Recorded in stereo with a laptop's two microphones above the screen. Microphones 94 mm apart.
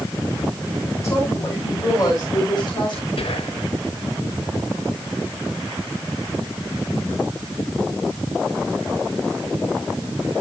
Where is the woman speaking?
25° left (ahead or behind), 5.5 m; by 3.1 s 55° left (ahead or behind), 6.5 m.